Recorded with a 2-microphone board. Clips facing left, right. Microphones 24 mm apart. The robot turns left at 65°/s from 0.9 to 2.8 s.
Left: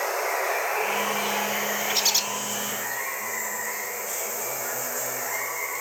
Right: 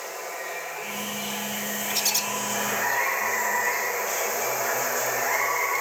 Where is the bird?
15° left (ahead or behind), 0.5 m; by 2.2 s 30° left (ahead or behind), 0.5 m.